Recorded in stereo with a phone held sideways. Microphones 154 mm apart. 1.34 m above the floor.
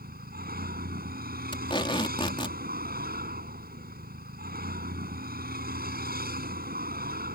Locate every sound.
0.0 s a vehicle: 80° right
1.5 s tape being pulled: 30° left (ahead or behind)